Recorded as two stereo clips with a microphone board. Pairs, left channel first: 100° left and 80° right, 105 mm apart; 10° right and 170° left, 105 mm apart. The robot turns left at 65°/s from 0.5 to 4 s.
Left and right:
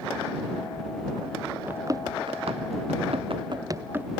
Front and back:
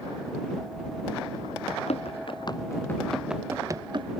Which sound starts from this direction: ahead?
Running footsteps, at 1.7 s.